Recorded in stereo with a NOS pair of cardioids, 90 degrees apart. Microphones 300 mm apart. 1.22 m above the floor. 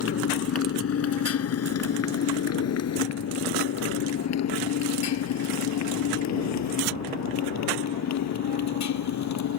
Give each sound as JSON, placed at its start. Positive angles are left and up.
{"t": 0.0, "sound": "a motorcycle", "azimuth_deg": 50}